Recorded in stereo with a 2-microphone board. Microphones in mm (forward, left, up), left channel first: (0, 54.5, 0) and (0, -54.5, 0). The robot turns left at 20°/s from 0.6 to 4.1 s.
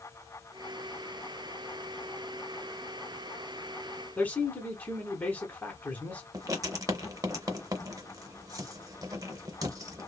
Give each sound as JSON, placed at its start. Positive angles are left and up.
{"t": 4.2, "sound": "a man speaking", "side_deg": 15, "distance_m": 1.1}
{"t": 6.3, "sound": "writing", "side_deg": -35, "distance_m": 0.5}